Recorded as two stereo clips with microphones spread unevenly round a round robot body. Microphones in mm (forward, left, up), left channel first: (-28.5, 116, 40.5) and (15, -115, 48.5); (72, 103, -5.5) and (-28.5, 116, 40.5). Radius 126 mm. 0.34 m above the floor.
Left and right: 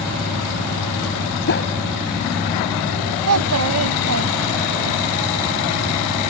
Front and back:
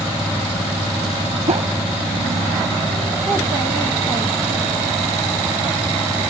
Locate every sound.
1.5 s a whoosh: 140° left
3.3 s a child speaking: 95° right